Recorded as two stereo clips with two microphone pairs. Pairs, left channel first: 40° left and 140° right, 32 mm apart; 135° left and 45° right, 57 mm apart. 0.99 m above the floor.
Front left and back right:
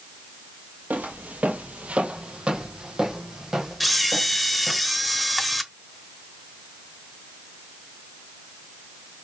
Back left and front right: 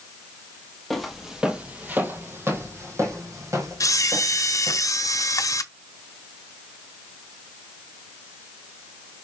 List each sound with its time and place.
0.9 s footsteps: 140° right, 1.7 m; by 4.8 s 60° right, 4 m
3.8 s a camera shutter: 130° left, 0.8 m